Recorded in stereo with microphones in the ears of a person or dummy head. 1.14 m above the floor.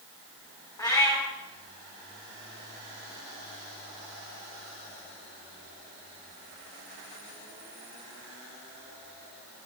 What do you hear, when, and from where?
0.8 s a cat meowing: 15° left (ahead or behind), 0.8 m